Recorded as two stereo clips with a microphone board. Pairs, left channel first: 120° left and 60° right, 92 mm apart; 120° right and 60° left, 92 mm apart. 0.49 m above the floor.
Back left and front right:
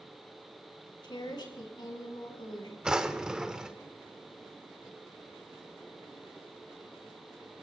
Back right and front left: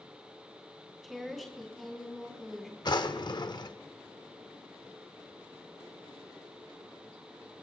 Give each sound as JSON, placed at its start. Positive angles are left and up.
{"t": 1.0, "sound": "a woman speaking", "azimuth_deg": 150, "distance_m": 3.5}
{"t": 2.9, "sound": "a drawer", "azimuth_deg": -140, "distance_m": 0.7}